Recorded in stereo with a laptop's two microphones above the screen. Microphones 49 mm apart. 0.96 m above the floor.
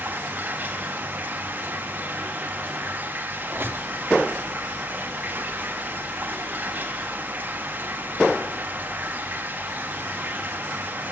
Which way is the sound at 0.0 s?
35° right (ahead or behind).